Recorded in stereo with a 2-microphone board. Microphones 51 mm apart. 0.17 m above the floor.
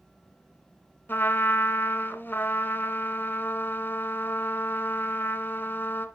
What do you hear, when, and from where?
1.1 s a trumpet: 40° left (ahead or behind), 0.8 m